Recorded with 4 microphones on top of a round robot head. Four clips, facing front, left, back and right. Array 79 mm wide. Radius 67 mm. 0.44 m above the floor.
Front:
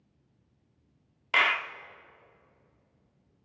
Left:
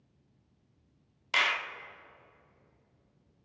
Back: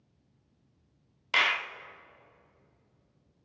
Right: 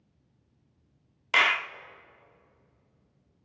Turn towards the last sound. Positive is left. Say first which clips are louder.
# right 5 dB, front 2 dB
turn(degrees=-75)